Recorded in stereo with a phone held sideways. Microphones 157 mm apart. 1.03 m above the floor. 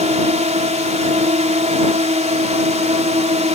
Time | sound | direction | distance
0.0 | a drone | 45° right (ahead or behind) | ?